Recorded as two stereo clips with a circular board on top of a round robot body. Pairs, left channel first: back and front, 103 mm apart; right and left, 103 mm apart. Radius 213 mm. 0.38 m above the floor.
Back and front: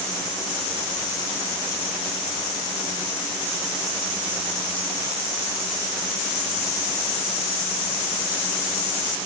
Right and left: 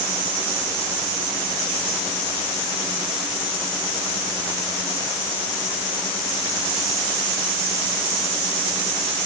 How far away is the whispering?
I don't hear whispering.